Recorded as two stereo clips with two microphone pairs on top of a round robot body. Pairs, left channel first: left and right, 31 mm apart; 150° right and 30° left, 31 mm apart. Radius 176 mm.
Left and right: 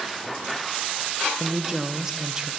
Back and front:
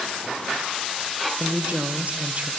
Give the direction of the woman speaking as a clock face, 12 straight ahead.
1 o'clock.